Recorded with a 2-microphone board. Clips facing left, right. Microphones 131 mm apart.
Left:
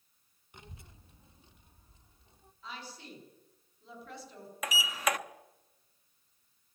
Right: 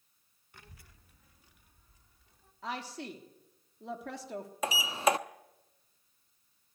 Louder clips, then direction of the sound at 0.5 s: Left 4 dB; 20° left (ahead or behind).